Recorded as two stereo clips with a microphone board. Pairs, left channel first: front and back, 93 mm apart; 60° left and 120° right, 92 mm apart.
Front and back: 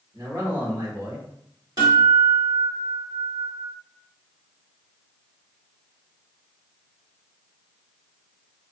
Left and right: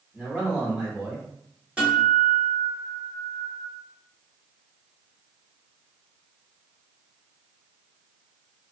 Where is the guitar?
165° left, 1.6 m.